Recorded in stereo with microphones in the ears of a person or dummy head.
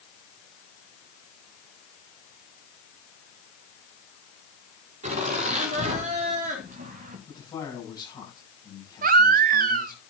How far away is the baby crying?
About 0.8 m.